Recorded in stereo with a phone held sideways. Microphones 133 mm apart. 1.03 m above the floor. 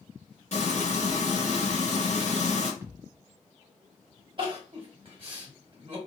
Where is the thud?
15° right (ahead or behind), 1.0 m.